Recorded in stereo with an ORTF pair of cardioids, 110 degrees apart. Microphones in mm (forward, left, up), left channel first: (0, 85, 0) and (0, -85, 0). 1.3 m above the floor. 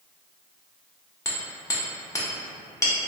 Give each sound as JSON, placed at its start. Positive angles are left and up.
{"t": 1.2, "sound": "hammering", "azimuth_deg": 20, "distance_m": 0.9}